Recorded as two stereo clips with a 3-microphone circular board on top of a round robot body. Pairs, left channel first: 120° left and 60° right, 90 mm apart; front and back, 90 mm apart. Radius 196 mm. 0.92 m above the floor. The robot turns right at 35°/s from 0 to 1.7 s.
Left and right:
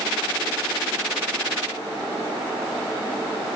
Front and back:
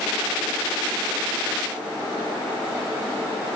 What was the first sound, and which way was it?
Only background noise.